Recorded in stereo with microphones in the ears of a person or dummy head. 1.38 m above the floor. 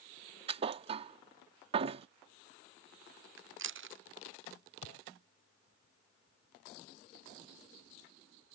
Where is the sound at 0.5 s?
30° right (ahead or behind).